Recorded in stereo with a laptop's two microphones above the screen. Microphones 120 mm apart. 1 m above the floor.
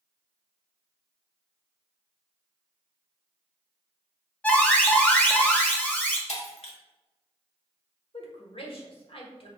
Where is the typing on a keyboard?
I don't hear typing on a keyboard.